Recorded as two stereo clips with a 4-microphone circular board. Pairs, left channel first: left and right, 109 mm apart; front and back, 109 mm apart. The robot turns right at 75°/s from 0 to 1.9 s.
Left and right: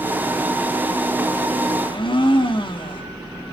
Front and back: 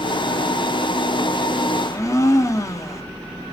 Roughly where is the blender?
Ahead left.